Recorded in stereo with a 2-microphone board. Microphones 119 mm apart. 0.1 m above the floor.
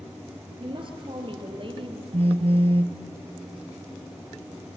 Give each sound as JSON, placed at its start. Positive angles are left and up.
{"t": 0.6, "sound": "a woman speaking", "side_deg": -45, "distance_m": 2.5}
{"t": 2.1, "sound": "a phone buzzing", "side_deg": -60, "distance_m": 0.6}